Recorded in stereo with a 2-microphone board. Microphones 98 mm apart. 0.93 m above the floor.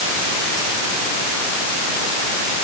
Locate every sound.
Only background noise.